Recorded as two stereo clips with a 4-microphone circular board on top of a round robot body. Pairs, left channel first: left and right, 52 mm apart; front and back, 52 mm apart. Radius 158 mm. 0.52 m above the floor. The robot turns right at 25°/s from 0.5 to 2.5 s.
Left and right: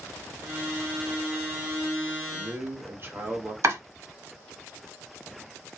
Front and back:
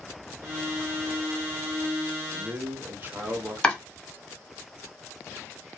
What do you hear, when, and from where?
2.3 s a man speaking: 135° right, 1.3 m; by 3.5 s 130° right, 1.3 m
3.6 s chopping: 75° right, 1.6 m